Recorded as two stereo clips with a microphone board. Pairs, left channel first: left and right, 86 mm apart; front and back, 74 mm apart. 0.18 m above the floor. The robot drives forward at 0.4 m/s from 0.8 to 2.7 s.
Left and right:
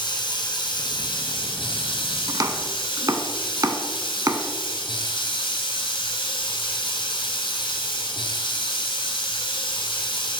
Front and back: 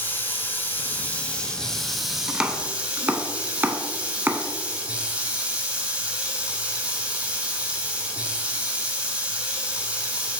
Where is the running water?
65° left, 1.1 m; by 10.4 s 105° left, 1.0 m.